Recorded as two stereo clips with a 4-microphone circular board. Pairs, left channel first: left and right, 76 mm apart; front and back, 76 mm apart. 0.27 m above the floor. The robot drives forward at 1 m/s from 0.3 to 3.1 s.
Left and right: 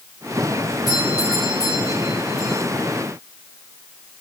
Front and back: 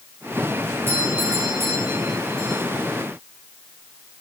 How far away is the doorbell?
About 7 m.